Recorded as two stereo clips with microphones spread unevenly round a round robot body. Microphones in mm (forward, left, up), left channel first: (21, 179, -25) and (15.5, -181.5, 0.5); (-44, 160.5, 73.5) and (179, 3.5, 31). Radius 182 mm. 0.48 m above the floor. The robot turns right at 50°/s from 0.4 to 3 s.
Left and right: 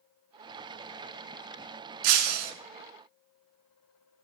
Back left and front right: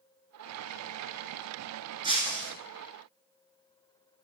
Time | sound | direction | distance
2.0 | breaking glass | 115° right | 0.8 m